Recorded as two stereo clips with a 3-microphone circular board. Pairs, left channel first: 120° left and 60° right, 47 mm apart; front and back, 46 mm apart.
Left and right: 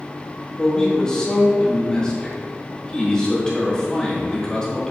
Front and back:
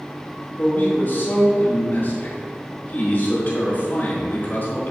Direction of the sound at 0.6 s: 45° left.